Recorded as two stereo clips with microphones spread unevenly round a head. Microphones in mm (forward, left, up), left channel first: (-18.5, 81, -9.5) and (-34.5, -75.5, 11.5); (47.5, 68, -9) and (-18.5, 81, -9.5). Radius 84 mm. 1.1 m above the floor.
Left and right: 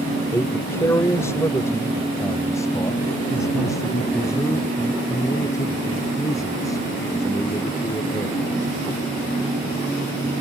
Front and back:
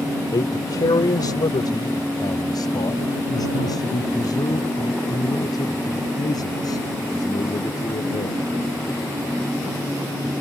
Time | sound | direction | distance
0.3 | a man speaking | 5° left | ?